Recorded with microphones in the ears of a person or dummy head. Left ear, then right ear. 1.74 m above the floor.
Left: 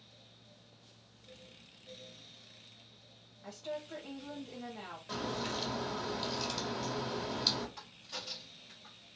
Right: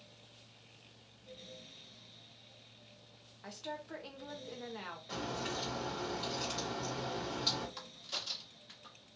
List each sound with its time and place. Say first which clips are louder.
3.4 s a woman speaking: left 2 dB; 40° right (ahead or behind), 0.7 m
5.1 s a crack: left 2 dB; 20° left (ahead or behind), 1.5 m
7.8 s a crack: right 3 dB; 30° right (ahead or behind), 1.2 m